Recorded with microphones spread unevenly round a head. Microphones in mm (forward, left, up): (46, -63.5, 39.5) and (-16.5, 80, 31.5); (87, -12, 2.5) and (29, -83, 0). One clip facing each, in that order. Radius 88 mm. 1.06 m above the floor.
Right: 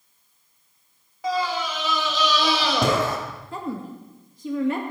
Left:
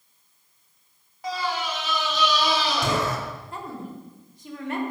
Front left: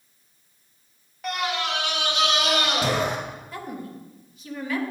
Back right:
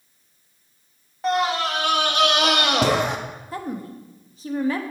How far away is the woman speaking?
About 1.4 m.